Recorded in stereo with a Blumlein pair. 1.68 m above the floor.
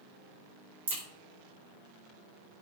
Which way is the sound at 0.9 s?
65° right.